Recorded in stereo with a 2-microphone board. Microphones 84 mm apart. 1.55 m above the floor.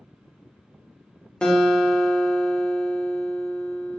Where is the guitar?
10° left (ahead or behind), 0.6 m.